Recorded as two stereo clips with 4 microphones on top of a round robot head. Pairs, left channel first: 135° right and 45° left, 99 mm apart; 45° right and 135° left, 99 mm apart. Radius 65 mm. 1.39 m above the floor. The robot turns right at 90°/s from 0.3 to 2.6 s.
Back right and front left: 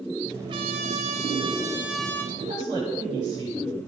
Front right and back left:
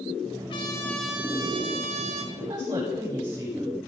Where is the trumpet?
5° right, 2 m; by 2.2 s 155° left, 2 m.